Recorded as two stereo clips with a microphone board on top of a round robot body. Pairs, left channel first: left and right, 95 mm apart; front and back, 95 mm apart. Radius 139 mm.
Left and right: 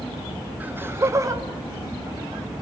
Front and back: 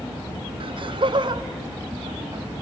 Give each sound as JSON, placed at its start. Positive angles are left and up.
{"t": 0.6, "sound": "laughter", "azimuth_deg": -165, "distance_m": 1.4}